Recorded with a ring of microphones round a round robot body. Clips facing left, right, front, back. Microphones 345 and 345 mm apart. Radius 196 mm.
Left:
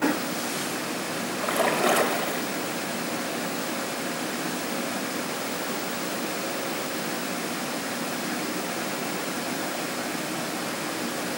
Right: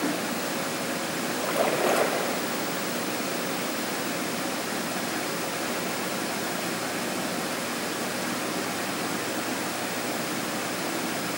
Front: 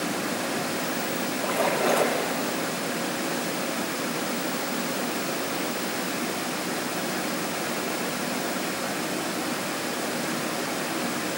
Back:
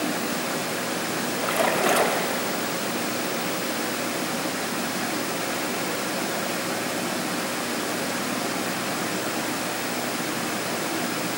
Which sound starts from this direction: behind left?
A splash, at 1.4 s.